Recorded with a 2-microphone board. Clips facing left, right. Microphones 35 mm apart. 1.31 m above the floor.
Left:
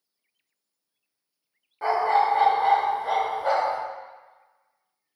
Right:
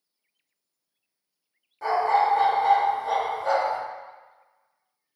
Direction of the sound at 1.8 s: 30° left (ahead or behind).